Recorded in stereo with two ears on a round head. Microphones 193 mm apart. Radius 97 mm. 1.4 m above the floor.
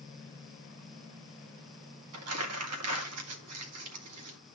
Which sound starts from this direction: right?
Crumpling, at 2.1 s.